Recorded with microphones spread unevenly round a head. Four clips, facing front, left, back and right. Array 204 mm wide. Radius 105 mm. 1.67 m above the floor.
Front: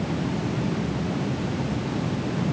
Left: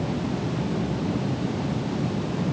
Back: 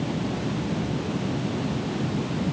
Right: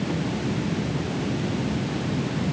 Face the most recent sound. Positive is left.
No sound to turn to.